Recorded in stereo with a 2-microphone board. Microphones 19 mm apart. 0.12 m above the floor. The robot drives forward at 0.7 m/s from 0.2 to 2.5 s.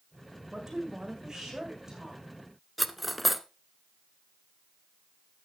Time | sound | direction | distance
0.5 | a woman speaking | 35° right (ahead or behind) | 7 m
2.8 | cutlery clinking | 5° right (ahead or behind) | 0.7 m